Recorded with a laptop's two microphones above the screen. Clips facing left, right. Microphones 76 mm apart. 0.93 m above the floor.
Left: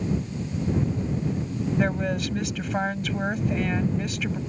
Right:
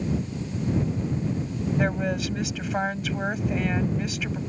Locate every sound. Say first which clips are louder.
1.8 s a woman speaking: even; centre (ahead or behind)